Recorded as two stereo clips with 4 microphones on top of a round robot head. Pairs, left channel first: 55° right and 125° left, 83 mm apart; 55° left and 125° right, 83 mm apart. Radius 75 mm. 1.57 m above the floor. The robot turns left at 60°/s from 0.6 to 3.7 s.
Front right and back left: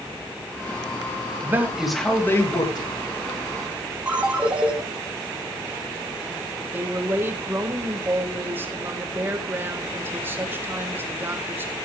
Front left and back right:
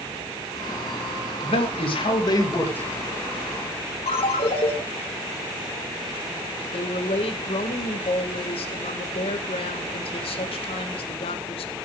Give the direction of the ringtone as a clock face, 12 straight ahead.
10 o'clock.